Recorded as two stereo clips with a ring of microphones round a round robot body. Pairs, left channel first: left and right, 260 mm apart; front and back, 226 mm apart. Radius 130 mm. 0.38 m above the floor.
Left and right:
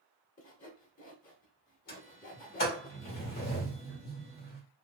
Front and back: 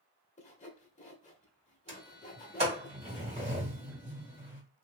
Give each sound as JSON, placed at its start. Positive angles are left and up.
{"t": 0.4, "sound": "sawing", "azimuth_deg": 45, "distance_m": 1.0}
{"t": 1.9, "sound": "a sliding door", "azimuth_deg": 130, "distance_m": 1.6}